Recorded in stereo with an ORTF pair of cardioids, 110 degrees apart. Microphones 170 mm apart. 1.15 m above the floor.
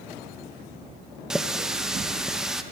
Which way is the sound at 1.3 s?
5° right.